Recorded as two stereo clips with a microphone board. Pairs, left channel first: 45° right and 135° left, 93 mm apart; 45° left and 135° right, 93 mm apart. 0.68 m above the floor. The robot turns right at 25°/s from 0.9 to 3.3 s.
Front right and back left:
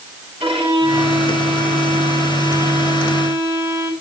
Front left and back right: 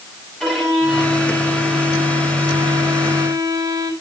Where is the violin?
130° left, 6.5 m; by 3.9 s 170° right, 6.5 m.